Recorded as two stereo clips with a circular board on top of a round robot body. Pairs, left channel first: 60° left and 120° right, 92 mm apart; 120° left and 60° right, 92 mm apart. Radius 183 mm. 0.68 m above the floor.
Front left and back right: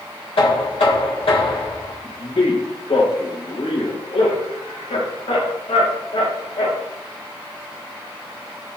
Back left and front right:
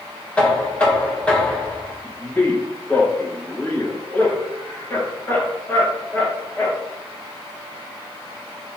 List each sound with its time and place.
0.4 s knocking: 45° left, 3.5 m
2.0 s a man speaking: 50° left, 4 m